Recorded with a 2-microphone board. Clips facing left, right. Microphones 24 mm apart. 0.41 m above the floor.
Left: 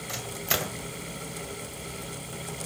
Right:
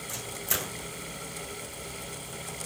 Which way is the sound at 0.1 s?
35° left (ahead or behind).